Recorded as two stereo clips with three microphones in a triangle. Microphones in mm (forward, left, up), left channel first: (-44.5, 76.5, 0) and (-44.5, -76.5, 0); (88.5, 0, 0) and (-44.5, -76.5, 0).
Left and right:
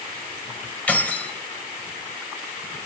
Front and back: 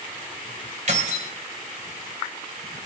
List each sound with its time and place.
0.9 s keys jangling: 170° left, 2.5 m